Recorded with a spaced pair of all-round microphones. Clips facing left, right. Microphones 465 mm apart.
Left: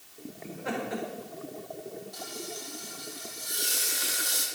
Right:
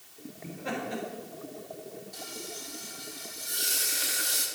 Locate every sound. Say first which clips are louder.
0.4 s laughter: left 1 dB; 50° right (ahead or behind), 3.5 m
2.1 s frying: left 2 dB; 45° right (ahead or behind), 2.5 m